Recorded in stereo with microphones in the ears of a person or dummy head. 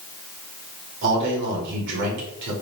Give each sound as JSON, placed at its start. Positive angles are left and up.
{"t": 1.0, "sound": "a man speaking", "side_deg": -65, "distance_m": 2.5}